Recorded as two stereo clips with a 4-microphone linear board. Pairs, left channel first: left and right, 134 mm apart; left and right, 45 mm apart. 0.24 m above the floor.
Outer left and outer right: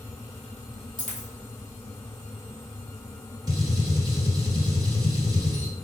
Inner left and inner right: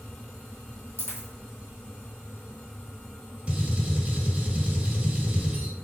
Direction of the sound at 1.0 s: 65° left (ahead or behind).